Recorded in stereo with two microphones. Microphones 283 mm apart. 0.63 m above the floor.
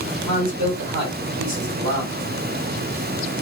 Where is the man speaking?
65° right (ahead or behind), 1.8 m.